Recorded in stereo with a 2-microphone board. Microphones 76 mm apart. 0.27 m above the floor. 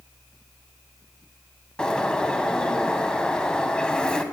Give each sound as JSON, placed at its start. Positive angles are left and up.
{"t": 1.8, "sound": "a bird", "side_deg": 10, "distance_m": 1.1}